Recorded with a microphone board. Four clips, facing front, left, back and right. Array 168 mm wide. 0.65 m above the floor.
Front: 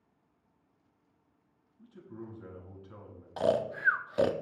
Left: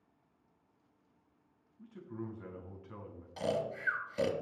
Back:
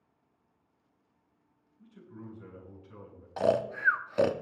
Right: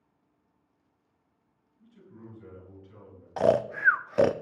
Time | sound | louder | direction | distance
1.8 | a man speaking | left 6 dB, front 2 dB | 65° left | 4.5 m
3.4 | snoring | right 11 dB, back 1 dB | 100° right | 0.6 m